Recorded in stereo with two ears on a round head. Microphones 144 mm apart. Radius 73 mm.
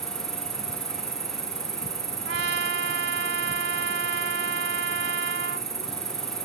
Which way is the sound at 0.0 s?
20° right (ahead or behind).